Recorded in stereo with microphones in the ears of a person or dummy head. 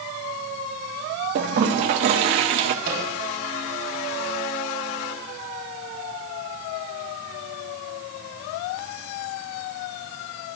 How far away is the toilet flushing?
About 0.8 m.